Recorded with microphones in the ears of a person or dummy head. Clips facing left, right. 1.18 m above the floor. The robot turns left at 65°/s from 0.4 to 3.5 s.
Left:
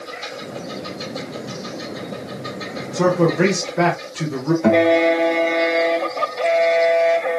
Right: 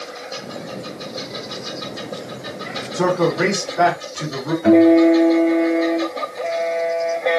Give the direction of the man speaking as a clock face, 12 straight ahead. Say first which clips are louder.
Left 1 dB; 6 o'clock.